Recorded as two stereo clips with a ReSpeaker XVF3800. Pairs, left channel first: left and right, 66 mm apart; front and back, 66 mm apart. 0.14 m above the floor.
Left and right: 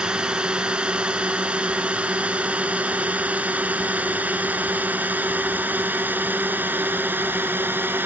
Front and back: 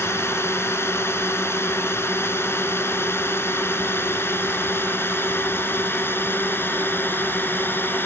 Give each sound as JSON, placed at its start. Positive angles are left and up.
{"t": 0.0, "sound": "a drone", "azimuth_deg": -20}